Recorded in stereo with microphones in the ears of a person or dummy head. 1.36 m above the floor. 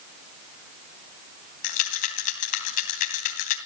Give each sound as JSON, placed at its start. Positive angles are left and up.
{"t": 1.6, "sound": "a rattle", "side_deg": 45, "distance_m": 2.5}